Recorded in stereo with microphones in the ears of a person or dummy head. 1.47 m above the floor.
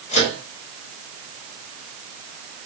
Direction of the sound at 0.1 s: 40° left (ahead or behind).